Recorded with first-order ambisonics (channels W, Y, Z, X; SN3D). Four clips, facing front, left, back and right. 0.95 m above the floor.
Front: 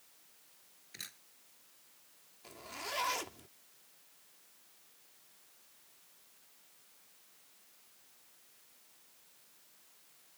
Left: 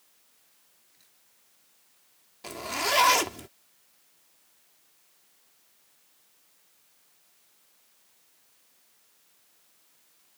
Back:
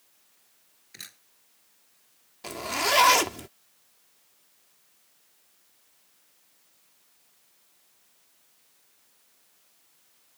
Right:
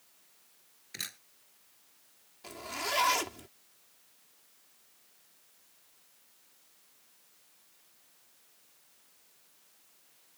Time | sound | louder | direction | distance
0.9 | a camera shutter | right 28 dB, back 4 dB | 100° right | ?
2.4 | a zipper | left 7 dB, back 17 dB | 155° left | ?